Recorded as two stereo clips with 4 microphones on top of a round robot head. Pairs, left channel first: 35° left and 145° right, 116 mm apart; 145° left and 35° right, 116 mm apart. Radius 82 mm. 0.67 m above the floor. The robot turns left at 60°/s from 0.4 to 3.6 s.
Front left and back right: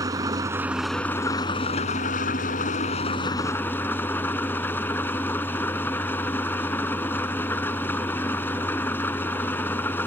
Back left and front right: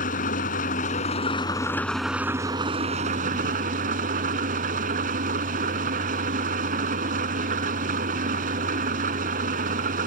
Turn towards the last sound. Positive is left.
turn(degrees=-40)